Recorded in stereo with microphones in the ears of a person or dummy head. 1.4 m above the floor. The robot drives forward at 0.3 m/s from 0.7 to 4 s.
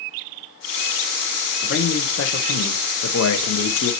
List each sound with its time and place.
1.6 s a man speaking: 55° left (ahead or behind), 0.7 m; by 3.9 s 65° left (ahead or behind), 0.7 m